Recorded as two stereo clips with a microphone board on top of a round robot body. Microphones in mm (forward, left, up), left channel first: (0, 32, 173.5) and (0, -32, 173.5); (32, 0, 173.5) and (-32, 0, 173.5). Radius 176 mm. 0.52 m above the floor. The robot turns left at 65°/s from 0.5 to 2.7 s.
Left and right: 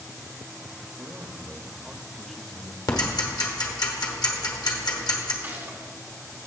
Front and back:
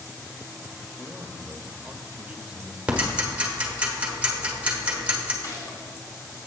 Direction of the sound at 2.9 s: 105° left.